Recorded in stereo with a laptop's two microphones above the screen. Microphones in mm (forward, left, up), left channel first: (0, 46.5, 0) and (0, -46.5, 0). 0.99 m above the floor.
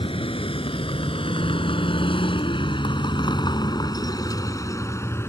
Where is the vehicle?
80° left; by 5.3 s 30° left (ahead or behind).